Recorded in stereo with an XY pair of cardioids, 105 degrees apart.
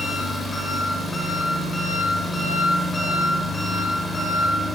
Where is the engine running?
15° left, 5 m.